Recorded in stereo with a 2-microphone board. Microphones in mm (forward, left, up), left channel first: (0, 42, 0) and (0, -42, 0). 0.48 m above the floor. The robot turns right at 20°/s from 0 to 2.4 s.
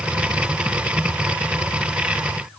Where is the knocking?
No knocking in this recording.